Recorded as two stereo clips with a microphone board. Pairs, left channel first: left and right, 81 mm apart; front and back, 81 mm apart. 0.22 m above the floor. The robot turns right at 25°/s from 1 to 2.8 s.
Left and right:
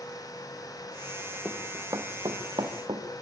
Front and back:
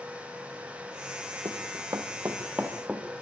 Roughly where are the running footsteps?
Behind right.